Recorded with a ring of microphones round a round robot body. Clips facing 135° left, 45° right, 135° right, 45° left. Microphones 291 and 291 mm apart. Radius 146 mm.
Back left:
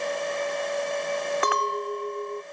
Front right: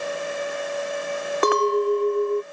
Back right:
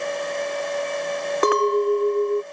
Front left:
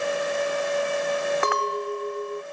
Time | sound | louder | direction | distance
1.4 | a clink | front right 10 dB, back right 10 dB | 85° right | ?